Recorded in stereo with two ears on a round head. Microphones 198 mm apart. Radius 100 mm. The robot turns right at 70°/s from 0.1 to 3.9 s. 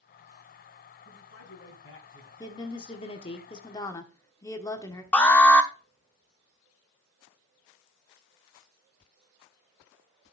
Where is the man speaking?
50° left, 4 m; by 2.3 s 135° left, 4 m.